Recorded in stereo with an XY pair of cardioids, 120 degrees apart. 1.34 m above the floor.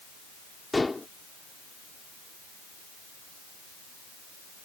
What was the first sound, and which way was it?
Dishes clattering, 15° left.